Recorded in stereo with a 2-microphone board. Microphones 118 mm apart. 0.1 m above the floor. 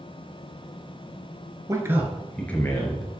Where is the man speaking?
30° right (ahead or behind), 1.3 m; by 3.2 s 35° left (ahead or behind), 1.9 m.